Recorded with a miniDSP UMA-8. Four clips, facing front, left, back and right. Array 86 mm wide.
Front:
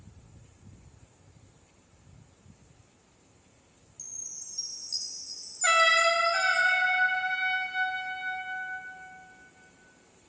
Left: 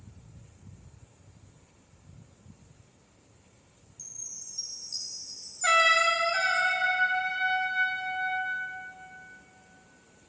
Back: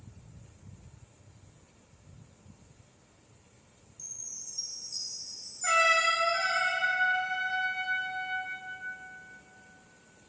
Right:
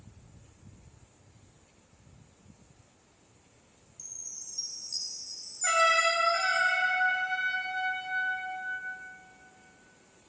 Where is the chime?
Straight ahead, 1.6 m.